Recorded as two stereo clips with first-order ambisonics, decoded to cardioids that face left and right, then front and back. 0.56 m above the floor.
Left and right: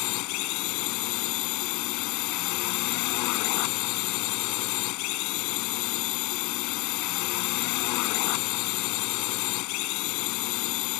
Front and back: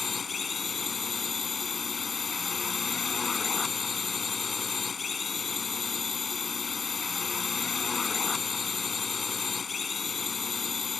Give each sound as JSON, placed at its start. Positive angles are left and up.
{"t": 0.0, "sound": "a drone", "azimuth_deg": 70}